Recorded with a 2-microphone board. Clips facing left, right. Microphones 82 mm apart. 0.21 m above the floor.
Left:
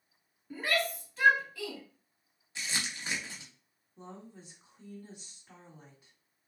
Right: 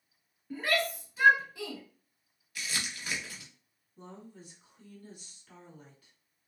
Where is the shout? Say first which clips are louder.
Right 1 dB; 5° left (ahead or behind), 1.6 m; by 1.8 s 25° right (ahead or behind), 1.3 m.